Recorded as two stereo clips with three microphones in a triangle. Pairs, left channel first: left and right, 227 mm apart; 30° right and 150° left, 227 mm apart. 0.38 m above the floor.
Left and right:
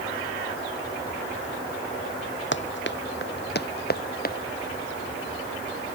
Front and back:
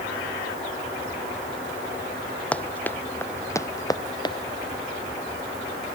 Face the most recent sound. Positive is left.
turn(degrees=40)